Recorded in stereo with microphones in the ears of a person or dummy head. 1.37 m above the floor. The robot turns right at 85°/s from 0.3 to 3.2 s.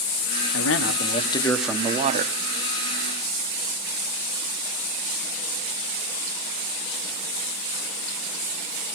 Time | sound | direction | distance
0.5 | a man speaking | 85° left | 1.1 m